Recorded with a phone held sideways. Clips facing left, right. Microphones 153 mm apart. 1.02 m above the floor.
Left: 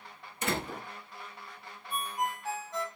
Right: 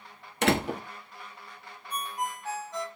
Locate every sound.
0.4 s a door slam: 75° right (ahead or behind), 1.1 m
1.9 s a ringtone: centre (ahead or behind), 1.3 m